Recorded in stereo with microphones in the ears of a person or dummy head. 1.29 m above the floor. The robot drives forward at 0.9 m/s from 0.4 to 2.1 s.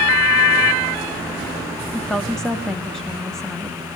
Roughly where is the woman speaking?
Centre.